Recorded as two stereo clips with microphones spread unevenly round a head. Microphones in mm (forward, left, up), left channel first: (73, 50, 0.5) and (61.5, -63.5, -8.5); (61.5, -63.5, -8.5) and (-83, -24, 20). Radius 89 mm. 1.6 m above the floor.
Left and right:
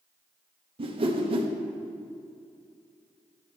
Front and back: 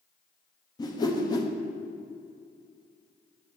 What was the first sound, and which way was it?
A whoosh, 80° right.